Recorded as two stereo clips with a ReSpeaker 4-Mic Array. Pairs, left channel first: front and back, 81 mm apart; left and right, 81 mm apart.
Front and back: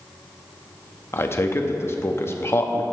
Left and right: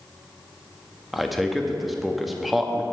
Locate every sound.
1.1 s a man speaking: 5° right, 0.7 m